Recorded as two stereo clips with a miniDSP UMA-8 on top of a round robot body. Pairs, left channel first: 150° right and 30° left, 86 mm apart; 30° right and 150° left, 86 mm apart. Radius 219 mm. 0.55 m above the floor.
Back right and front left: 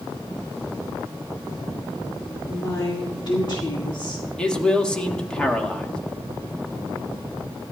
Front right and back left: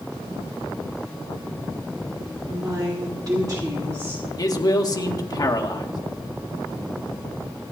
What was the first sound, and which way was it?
A woman speaking, 175° left.